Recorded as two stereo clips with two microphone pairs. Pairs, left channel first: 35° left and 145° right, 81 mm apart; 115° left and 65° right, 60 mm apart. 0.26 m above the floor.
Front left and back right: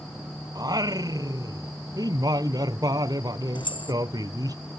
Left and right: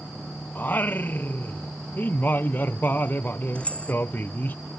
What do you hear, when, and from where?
0.6 s singing: 175° left
3.5 s keys jangling: 45° left